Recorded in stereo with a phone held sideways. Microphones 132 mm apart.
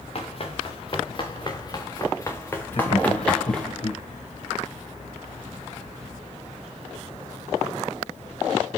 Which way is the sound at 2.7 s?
50° left (ahead or behind).